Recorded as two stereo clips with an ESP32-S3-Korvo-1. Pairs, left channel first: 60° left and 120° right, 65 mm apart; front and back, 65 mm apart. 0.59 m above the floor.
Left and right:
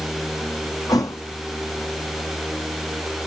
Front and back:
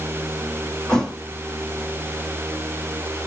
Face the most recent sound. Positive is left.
turn(degrees=80)